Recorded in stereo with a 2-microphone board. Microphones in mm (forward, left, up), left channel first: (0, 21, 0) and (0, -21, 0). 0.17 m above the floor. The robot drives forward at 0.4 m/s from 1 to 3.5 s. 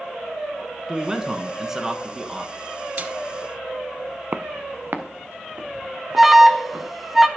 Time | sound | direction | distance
0.9 | a man speaking | 10° right (ahead or behind) | 1.6 m
3.0 | a snare drum | 35° right (ahead or behind) | 0.7 m
4.3 | footsteps | 40° right (ahead or behind) | 0.6 m
6.2 | an alarm | 5° right (ahead or behind) | 1.0 m